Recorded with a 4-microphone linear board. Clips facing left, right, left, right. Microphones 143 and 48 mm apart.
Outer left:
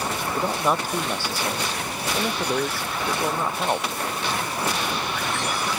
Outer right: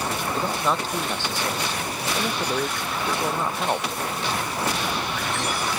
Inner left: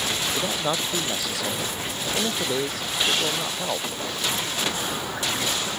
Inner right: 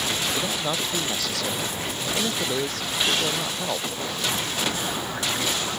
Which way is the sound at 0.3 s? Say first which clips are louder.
Outer left 2 dB, inner left 1 dB; 15° left (ahead or behind).